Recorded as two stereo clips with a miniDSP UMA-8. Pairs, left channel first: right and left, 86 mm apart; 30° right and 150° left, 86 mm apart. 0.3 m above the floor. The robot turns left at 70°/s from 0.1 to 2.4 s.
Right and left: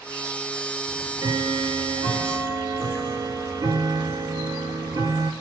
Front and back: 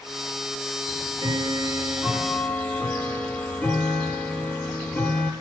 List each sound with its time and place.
0.9 s ticking: 150° left, 1.3 m; by 5.3 s 45° left, 1.3 m